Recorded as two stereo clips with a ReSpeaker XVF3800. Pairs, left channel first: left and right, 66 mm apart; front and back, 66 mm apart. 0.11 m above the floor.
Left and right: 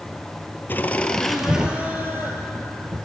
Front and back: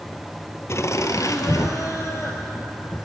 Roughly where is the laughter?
Ahead left.